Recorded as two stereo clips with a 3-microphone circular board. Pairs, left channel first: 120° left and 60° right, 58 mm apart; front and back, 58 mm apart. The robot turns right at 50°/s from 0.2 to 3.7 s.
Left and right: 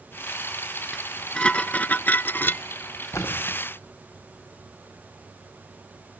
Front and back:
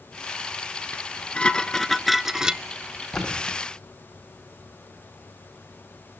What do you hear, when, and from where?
0.9 s dishes clattering: 35° left, 0.9 m; by 2.6 s 120° left, 0.9 m
3.1 s a splash: 80° left, 6.5 m; by 3.6 s 105° left, 6.5 m